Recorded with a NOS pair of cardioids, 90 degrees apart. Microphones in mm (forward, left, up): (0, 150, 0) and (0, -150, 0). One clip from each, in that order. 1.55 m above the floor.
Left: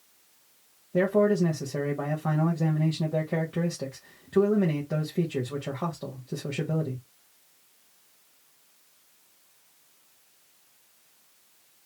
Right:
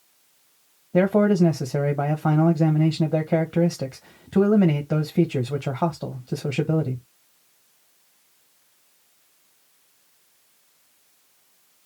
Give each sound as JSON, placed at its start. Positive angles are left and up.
{"t": 0.9, "sound": "a man speaking", "azimuth_deg": -45, "distance_m": 1.1}